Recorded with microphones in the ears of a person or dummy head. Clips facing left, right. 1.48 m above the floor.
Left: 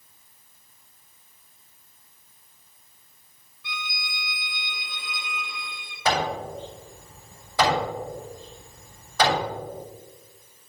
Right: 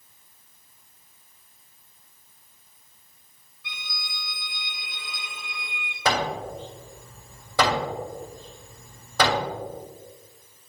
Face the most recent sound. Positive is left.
turn(degrees=-65)  # may be behind; listen again after turning